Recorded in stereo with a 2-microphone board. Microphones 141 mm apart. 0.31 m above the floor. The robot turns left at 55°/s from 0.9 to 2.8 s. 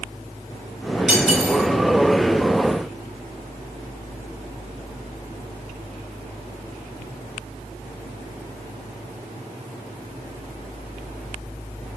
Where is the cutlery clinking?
5° right (ahead or behind), 3 m; by 1.6 s 25° left (ahead or behind), 3 m.